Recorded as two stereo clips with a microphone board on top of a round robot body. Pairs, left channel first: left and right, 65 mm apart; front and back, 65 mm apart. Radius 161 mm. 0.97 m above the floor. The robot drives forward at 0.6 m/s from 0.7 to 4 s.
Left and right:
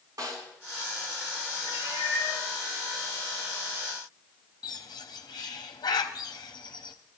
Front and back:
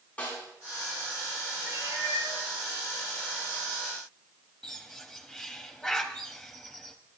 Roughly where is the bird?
Left.